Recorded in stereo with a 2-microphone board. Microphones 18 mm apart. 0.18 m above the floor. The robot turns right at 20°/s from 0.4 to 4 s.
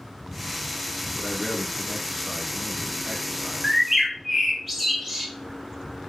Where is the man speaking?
20° left (ahead or behind), 1.2 m; by 3.7 s 30° left (ahead or behind), 1.2 m.